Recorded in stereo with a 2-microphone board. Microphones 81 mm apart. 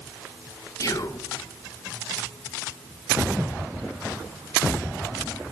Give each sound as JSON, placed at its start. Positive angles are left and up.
{"t": 0.8, "sound": "whispering", "side_deg": 50, "distance_m": 0.5}